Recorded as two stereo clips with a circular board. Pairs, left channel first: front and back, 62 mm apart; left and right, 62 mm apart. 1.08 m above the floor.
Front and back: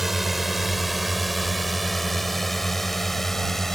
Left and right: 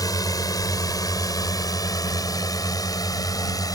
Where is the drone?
95° left; by 3.8 s 85° left.